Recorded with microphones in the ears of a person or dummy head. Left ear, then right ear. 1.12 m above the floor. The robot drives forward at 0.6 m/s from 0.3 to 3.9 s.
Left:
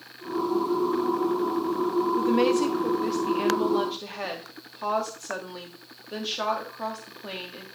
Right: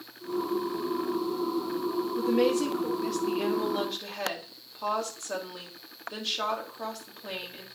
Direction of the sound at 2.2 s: 15° left (ahead or behind).